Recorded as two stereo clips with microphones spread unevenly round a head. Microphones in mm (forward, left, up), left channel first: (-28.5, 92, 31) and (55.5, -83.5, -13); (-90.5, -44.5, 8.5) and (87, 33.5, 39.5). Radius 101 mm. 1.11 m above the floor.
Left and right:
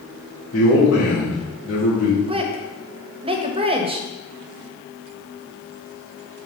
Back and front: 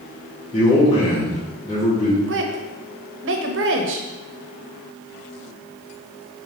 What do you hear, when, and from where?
0.5 s a man speaking: 140° left, 2.5 m
2.3 s a woman speaking: 5° right, 1.1 m